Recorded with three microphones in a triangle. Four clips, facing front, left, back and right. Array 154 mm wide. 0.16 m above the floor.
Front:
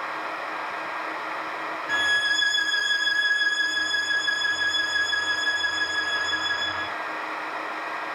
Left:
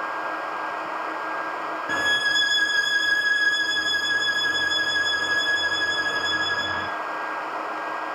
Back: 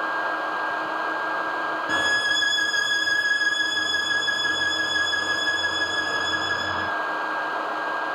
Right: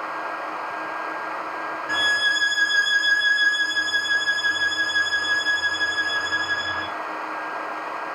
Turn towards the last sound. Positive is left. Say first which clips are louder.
# right 2 dB, front 2 dB
turn(degrees=130)